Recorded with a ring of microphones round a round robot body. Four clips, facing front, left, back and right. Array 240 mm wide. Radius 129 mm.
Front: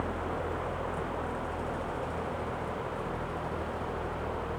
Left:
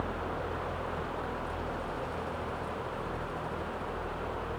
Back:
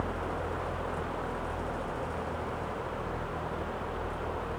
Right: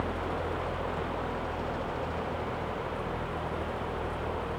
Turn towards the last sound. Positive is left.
No sound to turn to.